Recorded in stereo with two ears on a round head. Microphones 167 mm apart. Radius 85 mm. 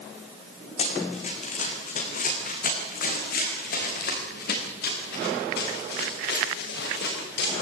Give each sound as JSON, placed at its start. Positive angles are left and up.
{"t": 0.8, "sound": "running footsteps", "side_deg": 35, "distance_m": 4.5}